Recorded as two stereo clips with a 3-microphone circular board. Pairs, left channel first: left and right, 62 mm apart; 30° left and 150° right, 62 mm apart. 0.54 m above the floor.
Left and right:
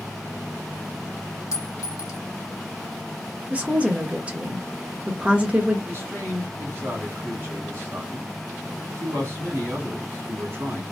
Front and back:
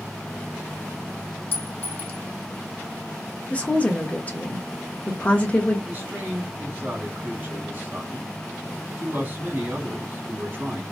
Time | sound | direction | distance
1.5 | a clink | 80° left | 1.2 m
3.5 | a woman speaking | 25° right | 1.0 m
5.9 | a man speaking | 110° right | 1.8 m